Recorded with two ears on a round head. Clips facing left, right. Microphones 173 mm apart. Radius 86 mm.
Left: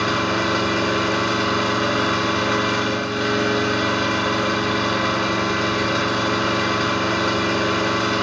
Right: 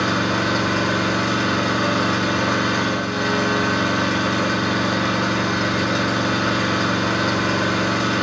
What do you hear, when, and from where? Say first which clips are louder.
0.0 s an engine running: right 1 dB; 10° right (ahead or behind), 2.0 m